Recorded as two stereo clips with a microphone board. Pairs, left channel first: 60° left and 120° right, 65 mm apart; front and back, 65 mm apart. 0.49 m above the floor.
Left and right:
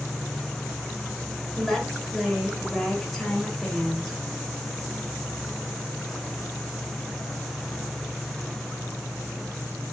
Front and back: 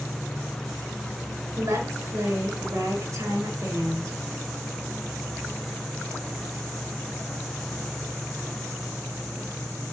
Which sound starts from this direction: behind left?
A woman speaking, at 1.6 s.